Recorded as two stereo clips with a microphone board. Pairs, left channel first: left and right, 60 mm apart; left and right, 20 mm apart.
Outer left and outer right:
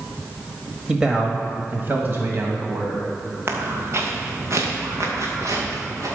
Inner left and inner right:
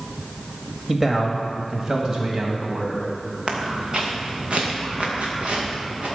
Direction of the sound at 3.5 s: 45° right (ahead or behind).